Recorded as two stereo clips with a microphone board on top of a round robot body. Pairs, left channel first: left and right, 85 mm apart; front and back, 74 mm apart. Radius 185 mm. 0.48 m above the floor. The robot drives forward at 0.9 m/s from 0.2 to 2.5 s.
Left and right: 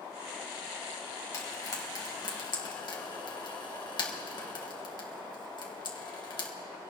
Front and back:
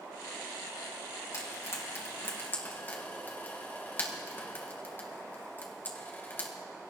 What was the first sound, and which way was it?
Frying, 40° left.